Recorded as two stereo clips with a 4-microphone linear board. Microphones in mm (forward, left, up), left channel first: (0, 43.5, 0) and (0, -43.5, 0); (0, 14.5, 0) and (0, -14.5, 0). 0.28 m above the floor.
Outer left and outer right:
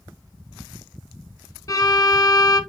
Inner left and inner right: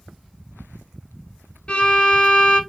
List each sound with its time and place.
1.7 s a violin: 45° left (ahead or behind), 0.9 m